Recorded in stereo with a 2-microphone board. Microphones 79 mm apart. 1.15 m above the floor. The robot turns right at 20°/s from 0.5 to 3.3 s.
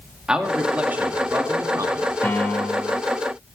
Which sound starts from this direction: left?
A piano, at 2.2 s.